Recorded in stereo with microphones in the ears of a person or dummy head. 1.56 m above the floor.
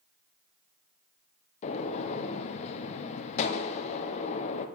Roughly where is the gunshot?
Left.